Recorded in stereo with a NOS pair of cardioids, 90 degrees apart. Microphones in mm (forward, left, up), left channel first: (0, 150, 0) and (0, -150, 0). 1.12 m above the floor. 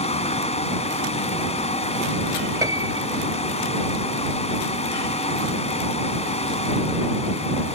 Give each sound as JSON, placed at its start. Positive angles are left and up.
{"t": 0.0, "sound": "a fan", "azimuth_deg": 20}
{"t": 2.6, "sound": "a piano", "azimuth_deg": -10}